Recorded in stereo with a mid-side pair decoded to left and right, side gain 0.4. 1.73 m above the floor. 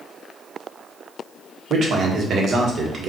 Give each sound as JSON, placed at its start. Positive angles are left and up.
{"t": 1.7, "sound": "a man speaking", "azimuth_deg": -60, "distance_m": 1.4}